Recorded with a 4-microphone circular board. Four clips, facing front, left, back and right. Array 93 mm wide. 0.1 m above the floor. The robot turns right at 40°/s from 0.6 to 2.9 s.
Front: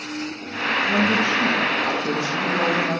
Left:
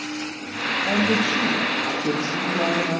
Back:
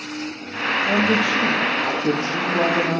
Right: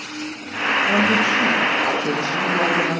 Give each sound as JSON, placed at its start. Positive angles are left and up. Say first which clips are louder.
{"t": 0.8, "sound": "a woman speaking", "louder": "right 2 dB, back 1 dB", "azimuth_deg": 125, "distance_m": 3.0}